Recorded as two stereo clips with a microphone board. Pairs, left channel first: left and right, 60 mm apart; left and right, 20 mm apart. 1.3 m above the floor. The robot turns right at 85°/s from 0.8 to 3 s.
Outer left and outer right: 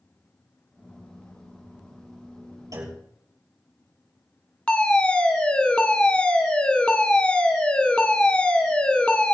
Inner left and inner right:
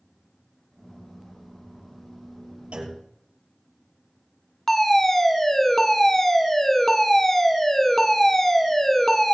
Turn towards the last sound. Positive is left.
turn(degrees=15)  # may be behind; listen again after turning